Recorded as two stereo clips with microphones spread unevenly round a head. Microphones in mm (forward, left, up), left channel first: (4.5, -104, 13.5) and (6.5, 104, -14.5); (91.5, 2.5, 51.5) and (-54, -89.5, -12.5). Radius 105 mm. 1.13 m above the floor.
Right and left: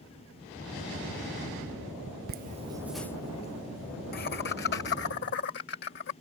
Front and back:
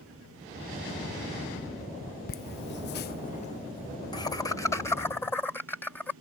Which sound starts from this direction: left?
Laughter, at 2.3 s.